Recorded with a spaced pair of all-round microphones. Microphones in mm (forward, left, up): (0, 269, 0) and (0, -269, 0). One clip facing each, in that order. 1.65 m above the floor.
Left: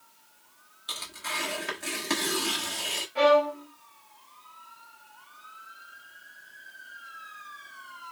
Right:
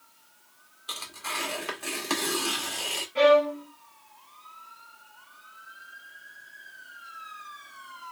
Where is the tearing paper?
45° left (ahead or behind), 1.6 m.